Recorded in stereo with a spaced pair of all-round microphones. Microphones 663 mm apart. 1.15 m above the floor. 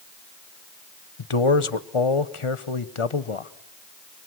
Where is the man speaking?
45° left (ahead or behind), 1.1 m.